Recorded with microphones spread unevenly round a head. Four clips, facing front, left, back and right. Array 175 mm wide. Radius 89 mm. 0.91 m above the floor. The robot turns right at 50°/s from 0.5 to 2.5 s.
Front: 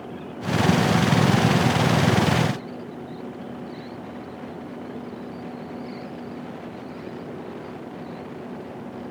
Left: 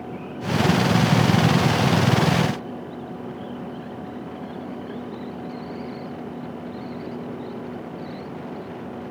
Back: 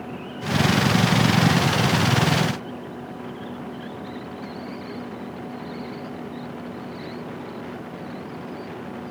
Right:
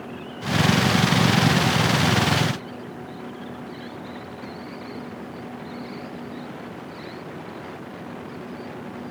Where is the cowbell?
No cowbell in this recording.